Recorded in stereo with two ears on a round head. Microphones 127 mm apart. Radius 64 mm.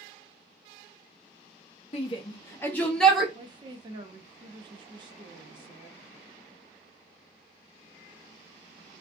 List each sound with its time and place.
1.9 s a shout: 45° left (ahead or behind), 0.7 m; by 3.2 s centre (ahead or behind), 1.0 m
3.4 s a woman speaking: 35° right (ahead or behind), 0.6 m